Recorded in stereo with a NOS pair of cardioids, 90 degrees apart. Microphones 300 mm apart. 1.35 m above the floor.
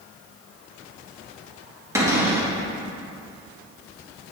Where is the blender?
No blender in this recording.